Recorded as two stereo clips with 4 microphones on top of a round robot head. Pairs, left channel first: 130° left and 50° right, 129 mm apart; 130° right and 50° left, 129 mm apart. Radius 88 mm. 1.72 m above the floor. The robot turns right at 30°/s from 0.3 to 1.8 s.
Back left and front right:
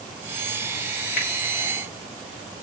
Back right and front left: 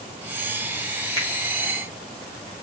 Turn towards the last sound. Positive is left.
turn(degrees=130)